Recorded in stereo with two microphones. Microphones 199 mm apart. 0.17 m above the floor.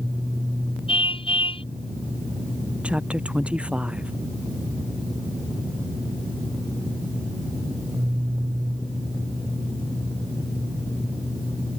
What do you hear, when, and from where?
0.9 s a car horn: 25° left (ahead or behind)
2.8 s a woman speaking: 5° right (ahead or behind)